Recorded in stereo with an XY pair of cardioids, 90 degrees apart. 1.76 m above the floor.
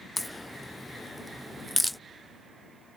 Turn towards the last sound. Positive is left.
turn(degrees=10)